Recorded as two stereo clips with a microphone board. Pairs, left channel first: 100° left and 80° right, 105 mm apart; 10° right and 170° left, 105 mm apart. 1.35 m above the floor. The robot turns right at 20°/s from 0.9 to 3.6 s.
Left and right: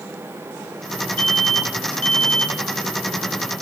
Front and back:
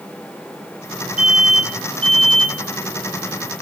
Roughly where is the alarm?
Right.